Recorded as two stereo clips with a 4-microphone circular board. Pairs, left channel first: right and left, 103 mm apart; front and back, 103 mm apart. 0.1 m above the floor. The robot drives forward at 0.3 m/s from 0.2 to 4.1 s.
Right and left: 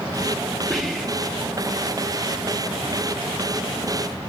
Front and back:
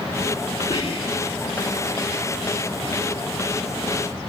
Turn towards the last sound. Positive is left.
turn(degrees=-10)